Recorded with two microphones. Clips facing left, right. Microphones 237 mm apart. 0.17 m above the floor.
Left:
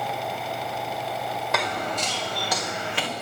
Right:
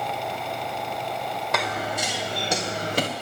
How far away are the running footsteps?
About 2 m.